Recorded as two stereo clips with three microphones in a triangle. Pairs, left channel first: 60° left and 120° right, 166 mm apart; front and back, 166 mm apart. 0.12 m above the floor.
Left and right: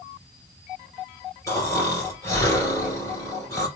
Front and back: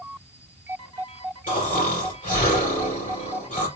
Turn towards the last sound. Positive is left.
turn(degrees=-10)